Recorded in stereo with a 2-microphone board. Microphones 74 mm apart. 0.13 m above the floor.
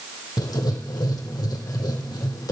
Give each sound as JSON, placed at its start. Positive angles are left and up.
{"t": 0.4, "sound": "writing", "side_deg": 65, "distance_m": 3.0}